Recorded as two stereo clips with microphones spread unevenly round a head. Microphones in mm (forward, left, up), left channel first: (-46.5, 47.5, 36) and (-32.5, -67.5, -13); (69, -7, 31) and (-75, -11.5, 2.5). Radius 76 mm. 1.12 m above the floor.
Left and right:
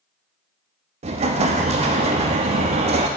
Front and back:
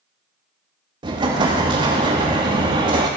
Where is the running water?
I don't hear running water.